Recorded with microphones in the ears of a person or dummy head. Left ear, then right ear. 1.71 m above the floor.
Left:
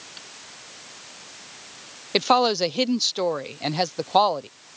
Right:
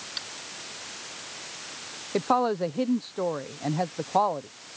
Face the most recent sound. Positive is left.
turn(degrees=80)